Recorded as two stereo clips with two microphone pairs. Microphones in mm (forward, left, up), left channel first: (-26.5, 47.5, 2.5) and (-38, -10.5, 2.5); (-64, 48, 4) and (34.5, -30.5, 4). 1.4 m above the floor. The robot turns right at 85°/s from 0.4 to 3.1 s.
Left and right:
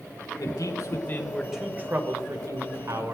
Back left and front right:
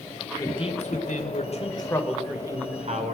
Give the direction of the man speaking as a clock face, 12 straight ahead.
9 o'clock.